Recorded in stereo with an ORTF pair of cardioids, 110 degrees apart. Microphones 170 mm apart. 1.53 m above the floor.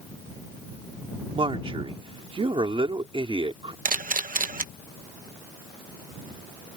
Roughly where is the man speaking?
Ahead right.